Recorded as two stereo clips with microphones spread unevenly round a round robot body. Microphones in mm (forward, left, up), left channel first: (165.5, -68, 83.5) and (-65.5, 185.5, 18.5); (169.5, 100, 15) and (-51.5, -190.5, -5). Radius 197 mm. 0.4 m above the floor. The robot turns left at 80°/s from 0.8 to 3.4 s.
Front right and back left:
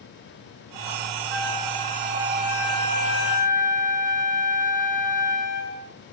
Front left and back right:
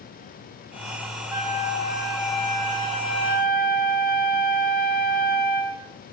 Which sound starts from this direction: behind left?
A flute, at 1.3 s.